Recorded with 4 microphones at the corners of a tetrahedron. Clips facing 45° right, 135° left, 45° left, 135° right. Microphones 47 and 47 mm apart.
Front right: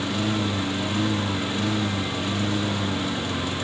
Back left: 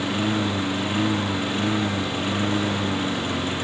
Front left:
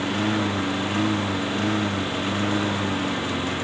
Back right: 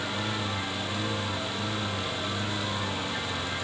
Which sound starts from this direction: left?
A lawn mower, at 0.0 s.